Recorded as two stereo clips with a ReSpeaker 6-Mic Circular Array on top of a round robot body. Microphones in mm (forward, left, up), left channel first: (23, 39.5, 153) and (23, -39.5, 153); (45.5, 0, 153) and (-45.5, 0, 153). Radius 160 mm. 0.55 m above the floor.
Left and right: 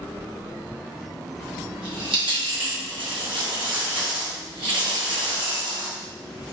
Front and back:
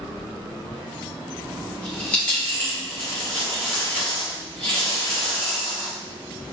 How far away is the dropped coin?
About 1.5 m.